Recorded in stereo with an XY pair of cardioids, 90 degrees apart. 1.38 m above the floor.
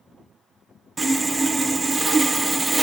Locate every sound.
1.0 s sawing: 35° right, 0.8 m